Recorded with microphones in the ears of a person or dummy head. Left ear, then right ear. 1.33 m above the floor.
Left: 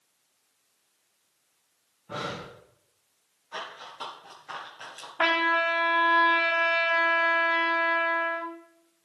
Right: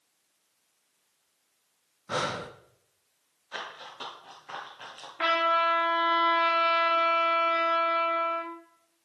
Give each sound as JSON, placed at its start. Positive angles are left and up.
{"t": 2.1, "sound": "breathing", "side_deg": -60, "distance_m": 0.7}
{"t": 3.5, "sound": "running footsteps", "side_deg": -10, "distance_m": 1.4}
{"t": 5.2, "sound": "a trumpet", "side_deg": 20, "distance_m": 1.0}